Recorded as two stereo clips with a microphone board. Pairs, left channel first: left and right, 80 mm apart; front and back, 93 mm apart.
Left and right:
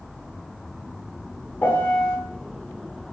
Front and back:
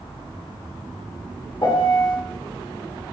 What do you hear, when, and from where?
1.6 s a piano: 25° left, 0.6 m